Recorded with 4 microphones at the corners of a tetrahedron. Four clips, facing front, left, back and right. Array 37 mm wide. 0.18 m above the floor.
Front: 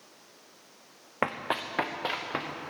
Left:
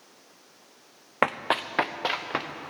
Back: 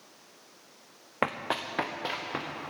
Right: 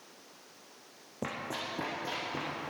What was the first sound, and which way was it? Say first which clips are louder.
Running footsteps: left 12 dB, even; 90° left.